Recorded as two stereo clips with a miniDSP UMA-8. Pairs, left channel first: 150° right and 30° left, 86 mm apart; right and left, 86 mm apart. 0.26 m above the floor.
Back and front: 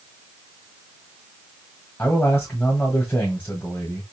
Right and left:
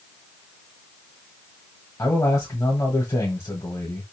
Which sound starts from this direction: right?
A man speaking, at 2.0 s.